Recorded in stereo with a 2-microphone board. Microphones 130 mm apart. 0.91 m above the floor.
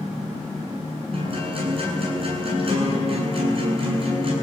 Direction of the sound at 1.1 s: 45° right (ahead or behind).